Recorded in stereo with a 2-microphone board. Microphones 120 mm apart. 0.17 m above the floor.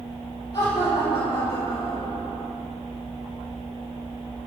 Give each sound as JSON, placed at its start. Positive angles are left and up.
{"t": 0.5, "sound": "laughter", "side_deg": 35, "distance_m": 4.5}